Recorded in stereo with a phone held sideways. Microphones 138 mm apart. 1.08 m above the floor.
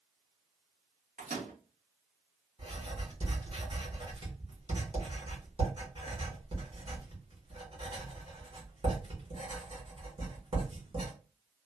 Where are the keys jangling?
No keys jangling in this recording.